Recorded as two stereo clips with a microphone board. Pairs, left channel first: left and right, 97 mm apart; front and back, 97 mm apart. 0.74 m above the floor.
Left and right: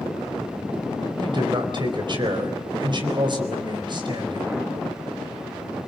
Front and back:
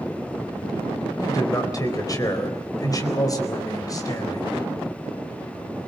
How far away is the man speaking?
About 4 m.